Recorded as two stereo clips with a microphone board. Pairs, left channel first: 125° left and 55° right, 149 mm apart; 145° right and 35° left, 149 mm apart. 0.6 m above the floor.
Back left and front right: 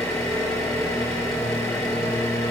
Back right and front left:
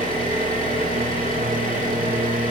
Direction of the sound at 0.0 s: 55° left.